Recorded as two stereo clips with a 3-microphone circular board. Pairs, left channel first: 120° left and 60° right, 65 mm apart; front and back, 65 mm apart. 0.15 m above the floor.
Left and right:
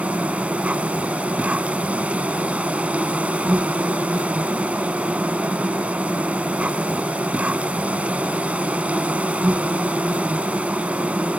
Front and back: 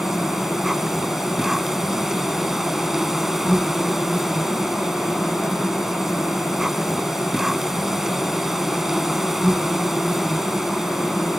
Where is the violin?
No violin in this recording.